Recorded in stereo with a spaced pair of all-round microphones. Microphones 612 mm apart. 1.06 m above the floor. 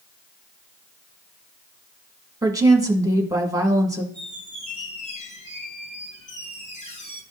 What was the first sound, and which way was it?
A woman speaking, 5° right (ahead or behind).